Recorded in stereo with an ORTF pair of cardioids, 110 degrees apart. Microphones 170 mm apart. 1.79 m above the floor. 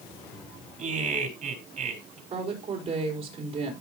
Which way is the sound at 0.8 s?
50° right.